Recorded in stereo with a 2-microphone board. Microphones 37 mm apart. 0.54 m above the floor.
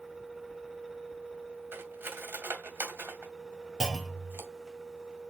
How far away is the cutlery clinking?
About 1.9 m.